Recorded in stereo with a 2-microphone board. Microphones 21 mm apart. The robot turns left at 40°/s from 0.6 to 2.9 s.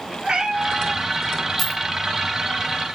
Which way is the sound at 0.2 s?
75° right (ahead or behind).